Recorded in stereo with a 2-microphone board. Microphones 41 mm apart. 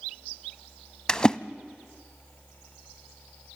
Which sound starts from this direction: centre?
A splash, at 1.1 s.